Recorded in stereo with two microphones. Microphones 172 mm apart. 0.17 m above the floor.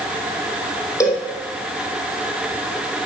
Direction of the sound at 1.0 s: 20° left (ahead or behind).